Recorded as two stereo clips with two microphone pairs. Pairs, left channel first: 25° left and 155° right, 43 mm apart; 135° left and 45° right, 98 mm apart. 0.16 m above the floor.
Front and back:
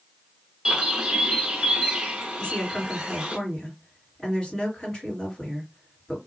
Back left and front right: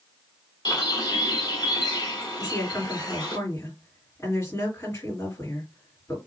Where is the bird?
140° left, 1.1 m.